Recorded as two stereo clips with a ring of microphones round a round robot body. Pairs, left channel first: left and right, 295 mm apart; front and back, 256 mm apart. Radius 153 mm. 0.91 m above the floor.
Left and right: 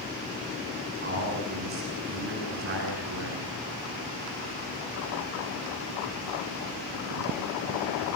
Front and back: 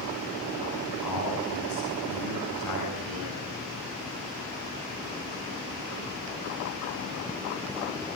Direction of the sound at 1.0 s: 30° right.